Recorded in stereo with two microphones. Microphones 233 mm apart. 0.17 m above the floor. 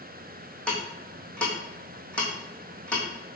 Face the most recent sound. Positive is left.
turn(degrees=5)  # may be behind; listen again after turning